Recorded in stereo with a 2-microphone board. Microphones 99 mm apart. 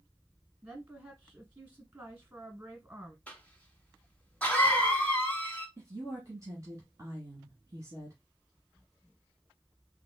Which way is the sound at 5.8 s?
30° right (ahead or behind).